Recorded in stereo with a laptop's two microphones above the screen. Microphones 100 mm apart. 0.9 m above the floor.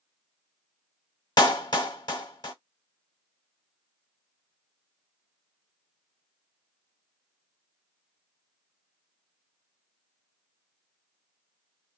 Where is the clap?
50° left (ahead or behind), 0.9 m.